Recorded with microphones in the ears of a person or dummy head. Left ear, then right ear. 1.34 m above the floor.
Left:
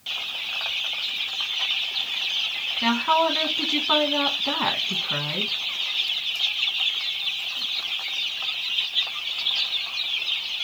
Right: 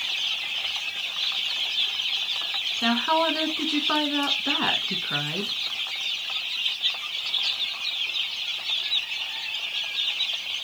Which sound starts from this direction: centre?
A woman speaking, at 2.8 s.